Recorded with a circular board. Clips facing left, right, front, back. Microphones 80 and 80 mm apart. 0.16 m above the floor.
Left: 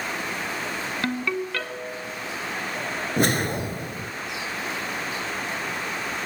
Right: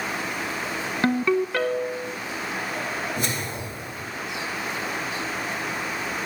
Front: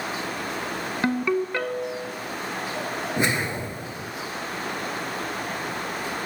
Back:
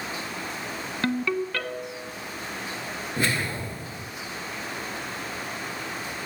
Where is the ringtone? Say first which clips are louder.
Right 7 dB, front 3 dB; 50° right, 0.9 m.